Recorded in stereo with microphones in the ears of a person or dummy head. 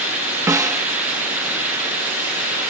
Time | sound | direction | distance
0.5 | a snare drum | 10° right (ahead or behind) | ?